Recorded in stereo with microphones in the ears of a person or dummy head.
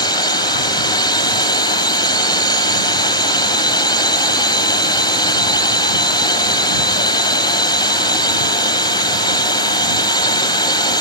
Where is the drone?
25° left (ahead or behind).